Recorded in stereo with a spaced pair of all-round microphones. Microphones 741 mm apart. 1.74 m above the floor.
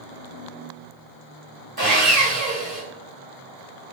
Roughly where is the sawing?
Right.